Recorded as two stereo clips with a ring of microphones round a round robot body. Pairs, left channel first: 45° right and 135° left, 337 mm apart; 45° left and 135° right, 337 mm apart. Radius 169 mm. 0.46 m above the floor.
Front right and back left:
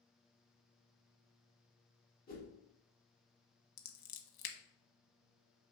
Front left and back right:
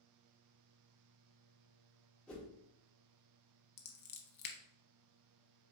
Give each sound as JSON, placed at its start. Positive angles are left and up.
{"t": 2.3, "sound": "a whoosh", "azimuth_deg": -35, "distance_m": 1.3}
{"t": 3.8, "sound": "scissors", "azimuth_deg": -15, "distance_m": 0.7}